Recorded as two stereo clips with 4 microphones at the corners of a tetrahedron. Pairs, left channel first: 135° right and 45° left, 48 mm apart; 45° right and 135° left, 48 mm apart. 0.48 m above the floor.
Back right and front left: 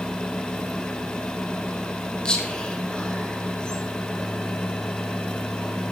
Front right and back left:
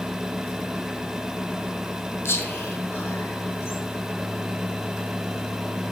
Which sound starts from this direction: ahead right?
Whispering, at 2.2 s.